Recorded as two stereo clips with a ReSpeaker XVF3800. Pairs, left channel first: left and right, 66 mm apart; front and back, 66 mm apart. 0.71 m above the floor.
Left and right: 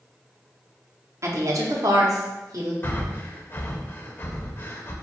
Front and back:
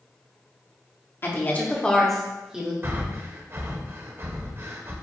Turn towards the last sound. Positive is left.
turn(degrees=140)